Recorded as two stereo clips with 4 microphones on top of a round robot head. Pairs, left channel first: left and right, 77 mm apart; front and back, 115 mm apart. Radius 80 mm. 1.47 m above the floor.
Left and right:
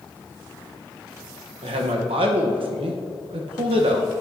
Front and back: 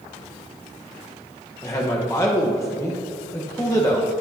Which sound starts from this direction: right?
A man speaking, at 1.6 s.